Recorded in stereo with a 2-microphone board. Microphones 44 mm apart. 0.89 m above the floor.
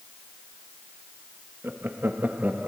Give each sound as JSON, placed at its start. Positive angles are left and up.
{"t": 1.6, "sound": "laughter", "side_deg": -50, "distance_m": 1.2}